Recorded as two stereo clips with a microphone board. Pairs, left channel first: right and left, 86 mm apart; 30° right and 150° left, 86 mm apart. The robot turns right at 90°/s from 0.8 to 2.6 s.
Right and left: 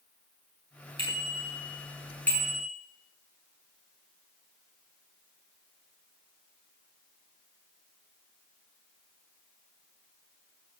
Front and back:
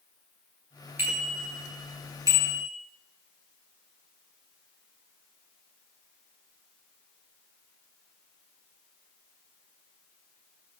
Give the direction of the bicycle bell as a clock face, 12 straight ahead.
9 o'clock.